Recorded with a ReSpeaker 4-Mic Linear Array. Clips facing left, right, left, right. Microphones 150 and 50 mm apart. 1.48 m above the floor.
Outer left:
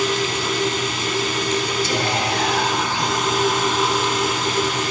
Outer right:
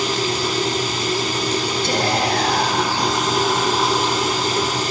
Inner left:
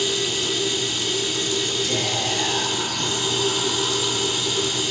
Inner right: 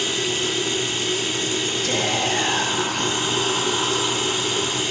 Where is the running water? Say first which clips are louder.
Even, inner right 1 dB; 35° right (ahead or behind), 3.5 m.